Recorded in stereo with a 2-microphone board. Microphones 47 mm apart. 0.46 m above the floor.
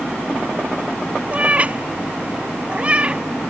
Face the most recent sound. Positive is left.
turn(degrees=-25)  # may be behind; listen again after turning